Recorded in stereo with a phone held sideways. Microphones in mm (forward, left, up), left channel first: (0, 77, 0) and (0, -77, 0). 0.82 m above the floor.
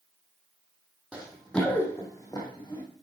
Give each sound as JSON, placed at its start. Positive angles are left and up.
{"t": 1.1, "sound": "running footsteps", "side_deg": -10, "distance_m": 2.0}